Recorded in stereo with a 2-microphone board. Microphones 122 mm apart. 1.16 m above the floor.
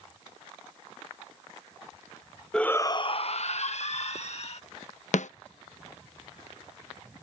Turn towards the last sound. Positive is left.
turn(degrees=75)  # may be behind; listen again after turning